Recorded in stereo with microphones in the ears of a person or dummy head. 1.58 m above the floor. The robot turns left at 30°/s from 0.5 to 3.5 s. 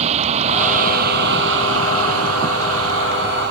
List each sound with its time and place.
0.0 s a vehicle: 35° right; by 3.5 s 125° right